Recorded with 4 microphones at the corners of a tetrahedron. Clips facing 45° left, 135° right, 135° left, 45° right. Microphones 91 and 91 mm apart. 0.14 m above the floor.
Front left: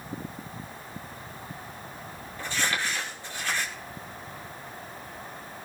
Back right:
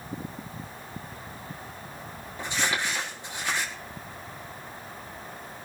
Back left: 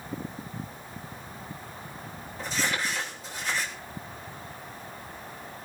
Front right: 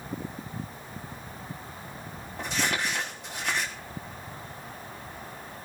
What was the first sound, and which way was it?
Crumpling, 65° right.